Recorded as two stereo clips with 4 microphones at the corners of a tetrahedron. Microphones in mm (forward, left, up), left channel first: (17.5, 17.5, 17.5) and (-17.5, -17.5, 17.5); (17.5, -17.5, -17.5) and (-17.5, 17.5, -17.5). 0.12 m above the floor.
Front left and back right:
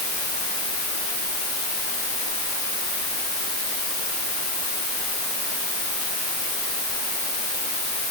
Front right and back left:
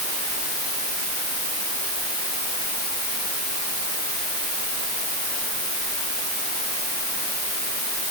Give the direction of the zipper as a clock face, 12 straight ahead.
I don't hear a zipper.